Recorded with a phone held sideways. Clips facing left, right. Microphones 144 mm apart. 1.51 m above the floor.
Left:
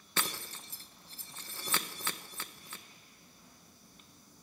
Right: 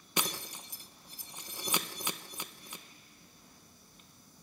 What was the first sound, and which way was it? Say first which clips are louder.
Breaking glass: right 2 dB; 15° right (ahead or behind).